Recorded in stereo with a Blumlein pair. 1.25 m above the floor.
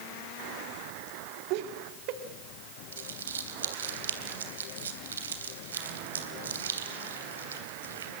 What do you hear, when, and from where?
1.5 s laughter: 45° right, 3 m
2.9 s crumpling: 70° right, 3 m